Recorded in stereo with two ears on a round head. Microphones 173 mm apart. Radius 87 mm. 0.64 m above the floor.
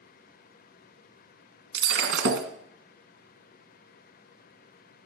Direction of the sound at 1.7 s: 70° right (ahead or behind).